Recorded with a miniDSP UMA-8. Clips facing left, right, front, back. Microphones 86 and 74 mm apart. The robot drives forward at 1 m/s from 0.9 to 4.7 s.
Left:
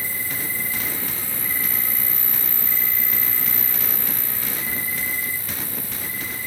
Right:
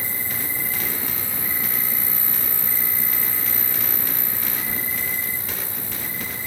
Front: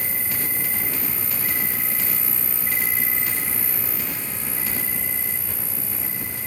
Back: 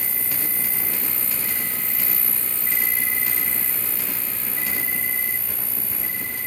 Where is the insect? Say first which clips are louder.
Even, front 2 dB; 25° right, 2.5 m; by 6.5 s 155° right, 2.5 m.